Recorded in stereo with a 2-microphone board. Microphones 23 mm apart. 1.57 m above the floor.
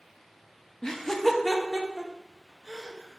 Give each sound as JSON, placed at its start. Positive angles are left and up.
{"t": 0.8, "sound": "laughter", "side_deg": 30, "distance_m": 0.5}